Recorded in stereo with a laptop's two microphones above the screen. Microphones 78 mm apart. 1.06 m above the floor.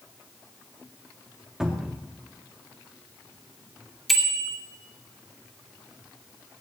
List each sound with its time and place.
1.6 s a cupboard door: 5° right (ahead or behind), 2.5 m
4.1 s a bicycle bell: centre (ahead or behind), 2 m